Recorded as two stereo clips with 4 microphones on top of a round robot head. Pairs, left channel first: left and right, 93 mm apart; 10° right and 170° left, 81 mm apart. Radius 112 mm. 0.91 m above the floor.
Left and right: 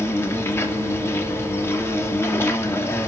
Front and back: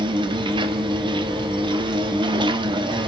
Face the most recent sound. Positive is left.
turn(degrees=155)